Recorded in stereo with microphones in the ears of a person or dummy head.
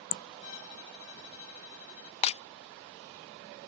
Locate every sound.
0.4 s a violin: 70° left (ahead or behind)
2.2 s breaking glass: 35° left (ahead or behind)